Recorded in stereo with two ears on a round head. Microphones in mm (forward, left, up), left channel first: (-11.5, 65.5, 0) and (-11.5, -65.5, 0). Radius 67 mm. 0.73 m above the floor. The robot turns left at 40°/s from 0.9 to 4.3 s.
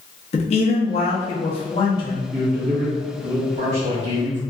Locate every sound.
0.3 s a man speaking: 90° left, 0.9 m; by 2.2 s 35° left, 0.9 m
2.3 s a man speaking: 60° right, 1.5 m; by 4.4 s 140° right, 1.5 m